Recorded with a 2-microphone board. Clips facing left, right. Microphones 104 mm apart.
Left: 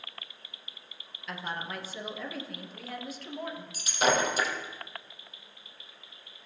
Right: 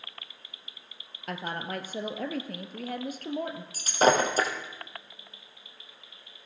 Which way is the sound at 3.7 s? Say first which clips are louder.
Right 4 dB; 40° right (ahead or behind).